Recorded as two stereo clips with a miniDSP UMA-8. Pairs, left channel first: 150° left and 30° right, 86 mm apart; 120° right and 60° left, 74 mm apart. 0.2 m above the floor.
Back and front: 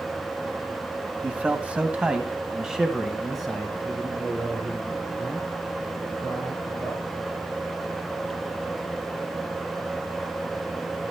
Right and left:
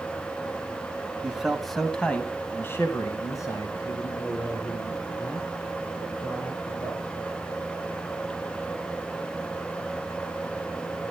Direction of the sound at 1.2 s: 10° left.